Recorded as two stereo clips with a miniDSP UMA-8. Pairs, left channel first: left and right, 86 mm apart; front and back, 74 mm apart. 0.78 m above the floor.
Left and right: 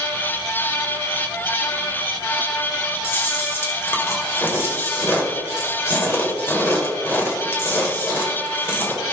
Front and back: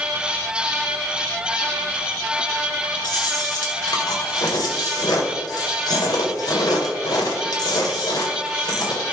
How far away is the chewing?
About 2 m.